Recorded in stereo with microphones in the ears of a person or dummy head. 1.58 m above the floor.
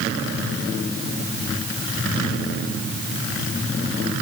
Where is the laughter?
No laughter in this recording.